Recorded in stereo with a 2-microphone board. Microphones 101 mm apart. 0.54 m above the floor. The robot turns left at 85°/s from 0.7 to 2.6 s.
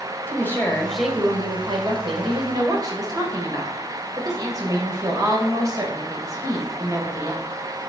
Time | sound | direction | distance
0.3 | a woman speaking | 25° left | 2.5 m